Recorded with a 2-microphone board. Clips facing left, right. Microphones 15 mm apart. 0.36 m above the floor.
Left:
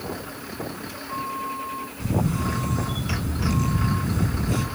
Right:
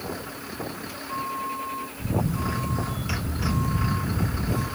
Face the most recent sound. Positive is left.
turn(degrees=70)  # may be behind; listen again after turning